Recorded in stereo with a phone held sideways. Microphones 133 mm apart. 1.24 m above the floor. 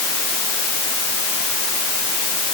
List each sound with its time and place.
Only background noise.